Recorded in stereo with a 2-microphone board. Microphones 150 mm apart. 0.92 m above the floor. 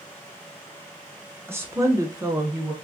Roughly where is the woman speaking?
Centre.